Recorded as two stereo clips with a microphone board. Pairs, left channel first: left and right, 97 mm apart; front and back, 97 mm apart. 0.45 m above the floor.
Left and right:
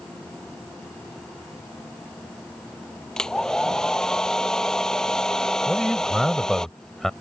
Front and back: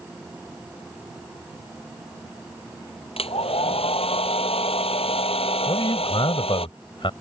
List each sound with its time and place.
3.2 s a hair dryer: 5° left
5.7 s a man speaking: 5° left